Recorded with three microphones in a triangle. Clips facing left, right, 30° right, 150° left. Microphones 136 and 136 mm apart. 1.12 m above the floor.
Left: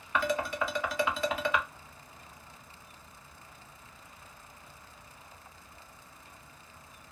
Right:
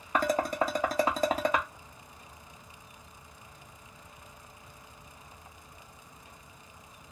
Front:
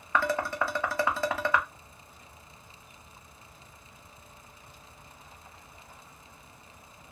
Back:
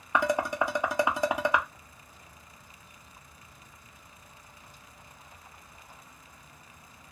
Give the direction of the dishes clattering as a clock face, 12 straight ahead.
5 o'clock.